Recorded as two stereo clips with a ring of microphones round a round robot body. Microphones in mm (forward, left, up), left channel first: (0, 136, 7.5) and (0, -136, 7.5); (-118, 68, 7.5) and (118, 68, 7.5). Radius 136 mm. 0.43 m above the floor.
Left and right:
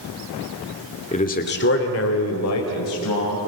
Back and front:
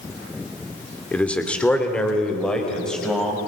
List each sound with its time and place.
1.1 s a man speaking: 105° left, 1.4 m; by 3.4 s 95° left, 3.5 m